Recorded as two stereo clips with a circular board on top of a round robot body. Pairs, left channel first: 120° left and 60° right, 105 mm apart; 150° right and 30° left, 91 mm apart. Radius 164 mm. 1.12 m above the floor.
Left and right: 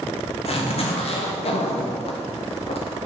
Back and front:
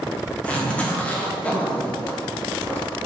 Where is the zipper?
135° left, 1.5 m.